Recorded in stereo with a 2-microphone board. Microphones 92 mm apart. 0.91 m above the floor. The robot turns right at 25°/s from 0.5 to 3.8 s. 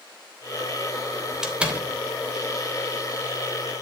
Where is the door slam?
5° right (ahead or behind), 3 m; by 1.9 s 15° right (ahead or behind), 3 m.